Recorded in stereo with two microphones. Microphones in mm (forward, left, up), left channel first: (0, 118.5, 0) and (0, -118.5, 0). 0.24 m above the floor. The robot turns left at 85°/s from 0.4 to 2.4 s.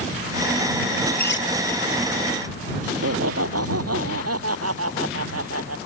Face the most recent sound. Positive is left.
turn(degrees=-80)